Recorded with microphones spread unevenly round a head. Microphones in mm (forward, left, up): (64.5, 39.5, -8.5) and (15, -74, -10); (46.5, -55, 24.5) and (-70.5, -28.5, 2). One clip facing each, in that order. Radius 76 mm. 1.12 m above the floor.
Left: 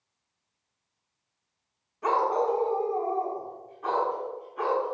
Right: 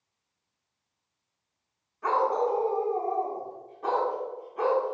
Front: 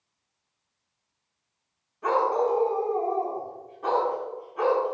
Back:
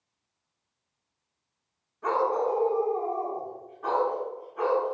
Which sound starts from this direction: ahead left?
A dog barking, at 2.0 s.